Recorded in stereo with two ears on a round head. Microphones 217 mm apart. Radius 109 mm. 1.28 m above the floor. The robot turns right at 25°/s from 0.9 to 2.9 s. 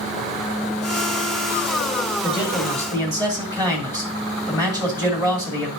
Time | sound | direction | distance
2.2 | a man speaking | centre (ahead or behind) | 2 m